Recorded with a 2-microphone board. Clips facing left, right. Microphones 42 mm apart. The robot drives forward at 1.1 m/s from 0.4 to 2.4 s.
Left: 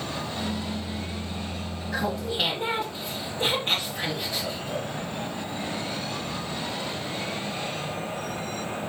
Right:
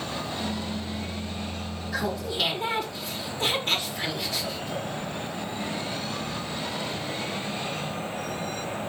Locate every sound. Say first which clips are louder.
1.9 s laughter: left 1 dB; 30° left (ahead or behind), 3 m; by 4.9 s 25° left (ahead or behind), 3.5 m